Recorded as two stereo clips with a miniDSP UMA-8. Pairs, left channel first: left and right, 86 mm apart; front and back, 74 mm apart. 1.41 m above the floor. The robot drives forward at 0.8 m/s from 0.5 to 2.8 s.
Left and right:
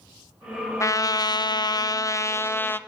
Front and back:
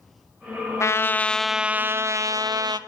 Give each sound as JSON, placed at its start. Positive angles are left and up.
{"t": 0.8, "sound": "a trumpet", "azimuth_deg": 40, "distance_m": 0.8}